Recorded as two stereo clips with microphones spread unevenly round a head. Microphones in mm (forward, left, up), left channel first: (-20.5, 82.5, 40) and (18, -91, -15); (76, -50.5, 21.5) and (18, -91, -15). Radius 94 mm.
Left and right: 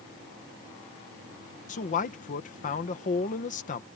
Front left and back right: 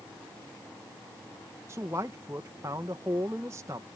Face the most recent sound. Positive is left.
turn(degrees=155)